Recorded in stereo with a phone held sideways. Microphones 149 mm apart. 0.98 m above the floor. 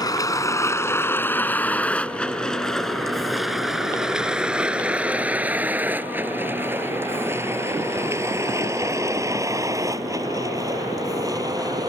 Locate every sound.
0.0 s a vehicle: 25° left (ahead or behind); by 11.9 s 25° right (ahead or behind)